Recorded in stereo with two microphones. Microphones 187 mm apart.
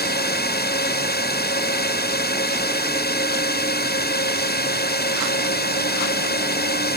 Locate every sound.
0.0 s a drone: 60° left (ahead or behind)